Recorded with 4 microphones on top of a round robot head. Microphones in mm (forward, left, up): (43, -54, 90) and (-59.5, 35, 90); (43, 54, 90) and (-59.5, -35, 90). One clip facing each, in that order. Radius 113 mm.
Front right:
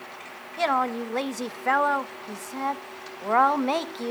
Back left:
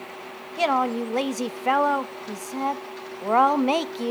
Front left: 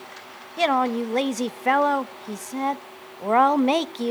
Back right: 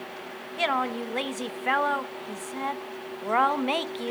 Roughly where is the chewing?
No chewing in this recording.